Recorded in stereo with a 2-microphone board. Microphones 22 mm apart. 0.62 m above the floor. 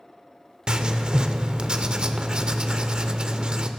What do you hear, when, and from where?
0.7 s writing: 35° right (ahead or behind), 0.6 m